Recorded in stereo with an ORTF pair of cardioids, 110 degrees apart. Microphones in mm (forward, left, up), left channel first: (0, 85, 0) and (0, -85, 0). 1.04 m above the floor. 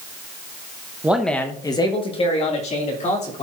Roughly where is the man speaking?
Ahead.